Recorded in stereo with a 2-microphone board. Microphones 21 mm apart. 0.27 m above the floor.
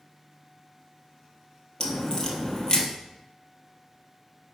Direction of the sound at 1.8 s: 30° left (ahead or behind).